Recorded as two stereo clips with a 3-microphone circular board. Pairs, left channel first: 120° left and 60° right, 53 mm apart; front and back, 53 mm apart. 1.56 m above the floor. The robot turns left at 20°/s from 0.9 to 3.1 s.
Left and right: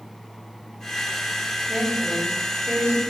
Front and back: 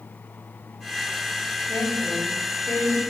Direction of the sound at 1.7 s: 20° left.